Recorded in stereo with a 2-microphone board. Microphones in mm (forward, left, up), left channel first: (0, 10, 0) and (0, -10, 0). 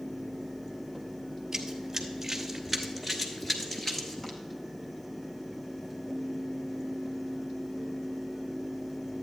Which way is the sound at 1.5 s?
15° right (ahead or behind).